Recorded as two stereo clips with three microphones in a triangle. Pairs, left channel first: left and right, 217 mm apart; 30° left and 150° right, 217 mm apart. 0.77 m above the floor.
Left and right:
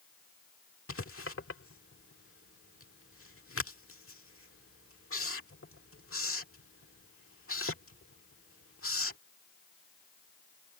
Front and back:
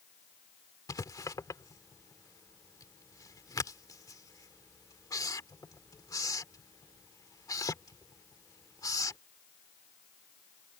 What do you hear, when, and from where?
0.9 s writing: 105° left